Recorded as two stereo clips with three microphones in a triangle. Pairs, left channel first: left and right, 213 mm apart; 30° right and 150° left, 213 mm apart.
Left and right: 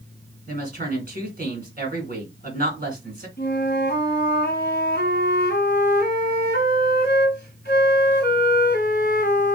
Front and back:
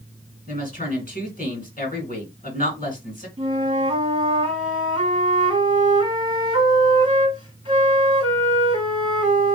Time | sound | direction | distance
0.5 | a woman speaking | 60° right | 2.5 m
3.4 | a flute | 90° left | 1.2 m